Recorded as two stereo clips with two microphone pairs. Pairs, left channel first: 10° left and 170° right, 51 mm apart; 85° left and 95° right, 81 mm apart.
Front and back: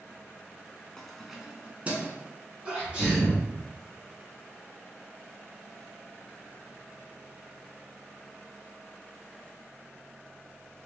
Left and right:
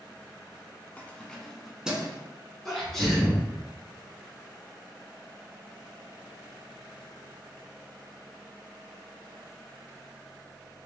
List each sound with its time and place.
1.0 s keys jangling: 80° left, 0.7 m; by 2.2 s 160° right, 0.9 m
2.6 s a sneeze: 170° left, 1.7 m